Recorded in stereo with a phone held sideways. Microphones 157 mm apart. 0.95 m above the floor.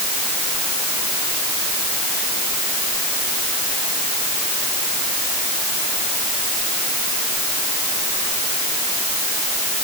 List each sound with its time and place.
Only background noise.